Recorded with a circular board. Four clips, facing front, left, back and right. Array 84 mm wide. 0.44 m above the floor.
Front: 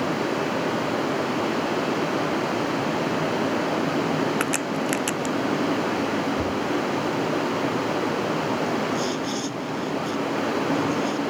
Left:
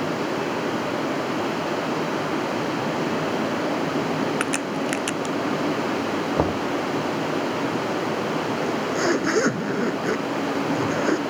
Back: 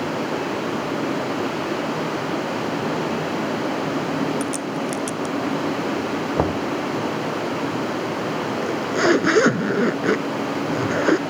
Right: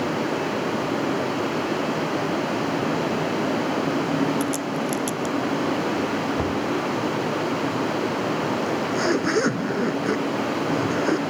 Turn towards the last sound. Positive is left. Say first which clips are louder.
# even, back 5 dB
turn(degrees=175)